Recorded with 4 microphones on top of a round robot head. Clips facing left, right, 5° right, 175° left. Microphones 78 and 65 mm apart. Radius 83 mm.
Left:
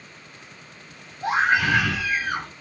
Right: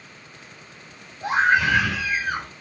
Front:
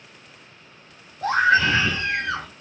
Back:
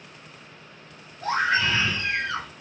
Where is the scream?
Straight ahead, 1.2 m.